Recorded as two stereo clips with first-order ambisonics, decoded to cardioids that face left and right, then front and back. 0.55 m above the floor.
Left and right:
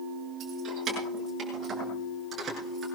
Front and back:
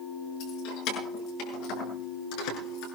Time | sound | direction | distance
0.4 | keys jangling | 25° right | 6 m